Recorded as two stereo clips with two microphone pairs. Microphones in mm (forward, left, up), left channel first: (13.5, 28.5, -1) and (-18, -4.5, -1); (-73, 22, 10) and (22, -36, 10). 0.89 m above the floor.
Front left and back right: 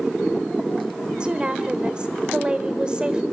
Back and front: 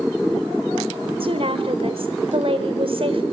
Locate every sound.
1.2 s a woman speaking: 65° right, 3.5 m